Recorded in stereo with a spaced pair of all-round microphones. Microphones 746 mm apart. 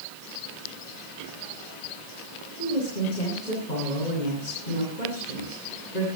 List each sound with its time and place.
2.6 s a woman speaking: 70° left (ahead or behind), 9.5 m